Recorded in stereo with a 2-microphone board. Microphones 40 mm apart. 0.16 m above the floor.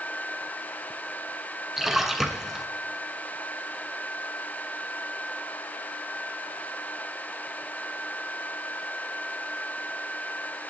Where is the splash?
5° right (ahead or behind), 1.7 m.